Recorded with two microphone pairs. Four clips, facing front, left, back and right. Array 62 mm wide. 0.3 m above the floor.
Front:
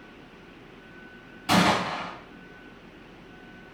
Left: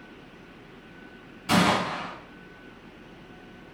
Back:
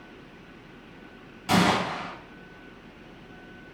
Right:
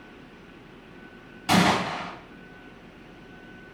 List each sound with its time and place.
1.5 s a gunshot: 85° right, 1.9 m